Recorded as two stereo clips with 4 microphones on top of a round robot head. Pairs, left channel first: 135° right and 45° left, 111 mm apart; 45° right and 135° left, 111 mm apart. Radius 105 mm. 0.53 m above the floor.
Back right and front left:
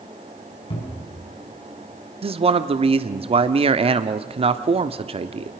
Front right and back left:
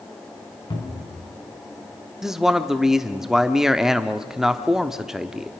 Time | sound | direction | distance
0.7 | a cupboard door | 95° right | 4.5 m
2.2 | a man speaking | 50° left | 1.1 m